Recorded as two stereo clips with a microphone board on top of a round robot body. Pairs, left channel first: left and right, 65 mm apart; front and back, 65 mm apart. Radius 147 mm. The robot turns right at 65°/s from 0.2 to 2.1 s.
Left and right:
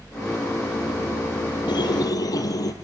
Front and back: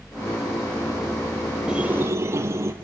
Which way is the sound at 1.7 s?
100° left.